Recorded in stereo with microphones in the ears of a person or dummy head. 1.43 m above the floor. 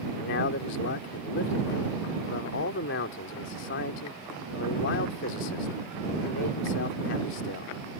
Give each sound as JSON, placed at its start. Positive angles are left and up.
{"t": 0.2, "sound": "a man speaking", "side_deg": 65}